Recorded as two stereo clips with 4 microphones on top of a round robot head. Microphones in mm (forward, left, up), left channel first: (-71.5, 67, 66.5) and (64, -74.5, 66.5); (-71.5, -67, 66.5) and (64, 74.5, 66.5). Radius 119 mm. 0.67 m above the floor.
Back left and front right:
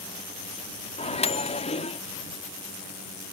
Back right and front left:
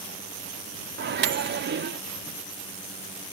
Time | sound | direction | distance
1.0 | a microwave | 75° left | ?